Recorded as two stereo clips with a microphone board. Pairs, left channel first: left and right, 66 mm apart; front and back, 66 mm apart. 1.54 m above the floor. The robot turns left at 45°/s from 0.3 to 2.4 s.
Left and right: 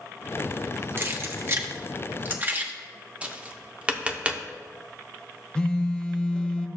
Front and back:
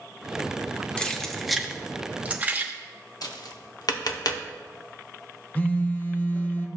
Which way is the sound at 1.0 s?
65° right.